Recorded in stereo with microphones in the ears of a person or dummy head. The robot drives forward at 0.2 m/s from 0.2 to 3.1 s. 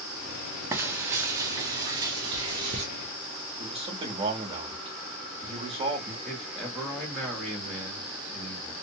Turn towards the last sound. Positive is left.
turn(degrees=0)  # may be behind; listen again after turning